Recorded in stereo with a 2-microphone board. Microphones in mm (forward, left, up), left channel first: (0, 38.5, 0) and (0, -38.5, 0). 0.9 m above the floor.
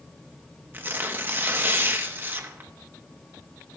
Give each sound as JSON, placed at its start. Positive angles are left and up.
{"t": 0.7, "sound": "tearing paper", "side_deg": -25, "distance_m": 0.9}